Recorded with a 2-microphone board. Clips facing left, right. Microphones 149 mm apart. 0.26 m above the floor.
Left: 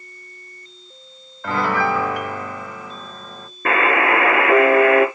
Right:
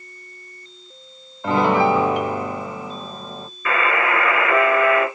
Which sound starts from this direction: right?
A piano, at 1.4 s.